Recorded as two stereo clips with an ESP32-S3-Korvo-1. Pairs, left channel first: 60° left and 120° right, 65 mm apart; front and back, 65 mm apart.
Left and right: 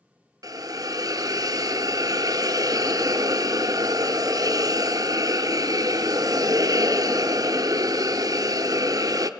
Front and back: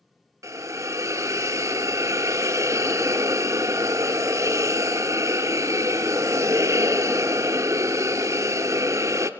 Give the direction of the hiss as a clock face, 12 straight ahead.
5 o'clock.